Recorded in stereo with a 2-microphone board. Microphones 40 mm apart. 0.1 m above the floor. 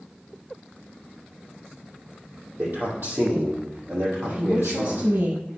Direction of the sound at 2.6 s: 60° right (ahead or behind).